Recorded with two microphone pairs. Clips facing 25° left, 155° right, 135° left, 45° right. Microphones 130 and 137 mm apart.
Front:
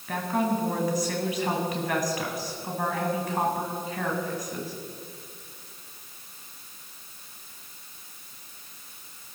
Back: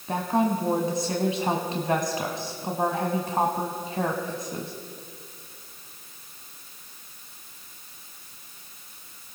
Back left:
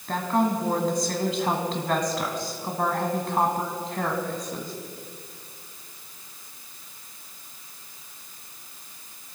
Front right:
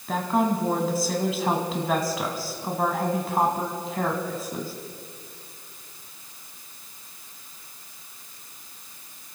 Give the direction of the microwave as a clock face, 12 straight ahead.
I don't hear a microwave.